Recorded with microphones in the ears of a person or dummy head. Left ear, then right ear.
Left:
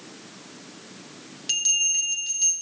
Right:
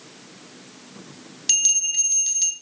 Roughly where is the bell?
Right.